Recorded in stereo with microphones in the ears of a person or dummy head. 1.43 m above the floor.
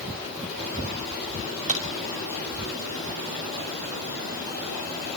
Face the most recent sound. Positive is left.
turn(degrees=-35)  # may be behind; listen again after turning